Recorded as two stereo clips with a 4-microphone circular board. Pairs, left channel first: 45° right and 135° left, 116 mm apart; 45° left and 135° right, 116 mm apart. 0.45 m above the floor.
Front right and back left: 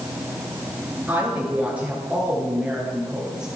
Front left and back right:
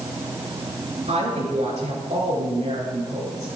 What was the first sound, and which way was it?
A woman speaking, 150° right.